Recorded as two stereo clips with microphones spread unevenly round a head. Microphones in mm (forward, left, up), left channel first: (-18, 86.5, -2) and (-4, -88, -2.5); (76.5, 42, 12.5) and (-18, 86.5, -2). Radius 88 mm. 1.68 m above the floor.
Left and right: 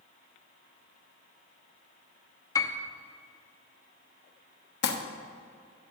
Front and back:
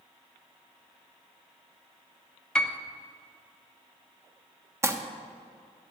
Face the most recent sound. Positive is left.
turn(degrees=90)